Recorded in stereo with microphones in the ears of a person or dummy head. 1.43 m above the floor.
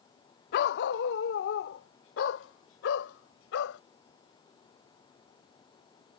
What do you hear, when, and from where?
0.5 s a dog barking: 55° left (ahead or behind); by 3.8 s 80° left